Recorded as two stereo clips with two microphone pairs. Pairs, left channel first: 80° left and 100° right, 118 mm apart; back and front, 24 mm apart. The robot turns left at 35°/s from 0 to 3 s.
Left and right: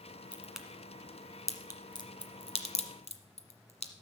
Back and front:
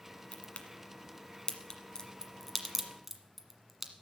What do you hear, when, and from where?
0.3 s a crack: straight behind, 1.4 m; by 3.9 s 90° left, 1.4 m